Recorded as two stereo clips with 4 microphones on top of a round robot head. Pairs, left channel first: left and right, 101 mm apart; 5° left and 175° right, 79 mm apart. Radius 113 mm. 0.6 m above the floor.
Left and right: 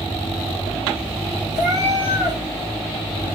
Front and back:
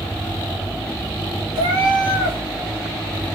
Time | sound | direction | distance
1.6 | a cat meowing | 145° right | 1.2 m